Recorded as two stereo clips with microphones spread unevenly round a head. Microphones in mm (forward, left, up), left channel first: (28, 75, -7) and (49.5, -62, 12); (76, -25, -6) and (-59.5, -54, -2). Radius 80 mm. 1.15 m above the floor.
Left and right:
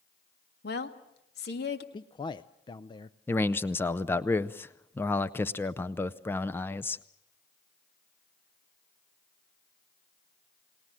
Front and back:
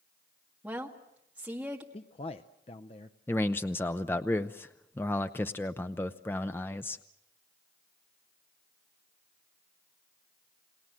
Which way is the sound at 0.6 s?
110° left.